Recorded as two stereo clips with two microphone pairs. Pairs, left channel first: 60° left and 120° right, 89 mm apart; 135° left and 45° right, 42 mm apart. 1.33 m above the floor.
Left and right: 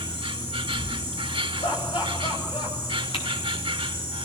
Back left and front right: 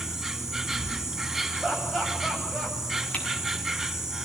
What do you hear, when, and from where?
0.0 s an insect: 130° right, 3 m
1.6 s laughter: 40° left, 10 m
3.1 s typing on a keyboard: 70° left, 6.5 m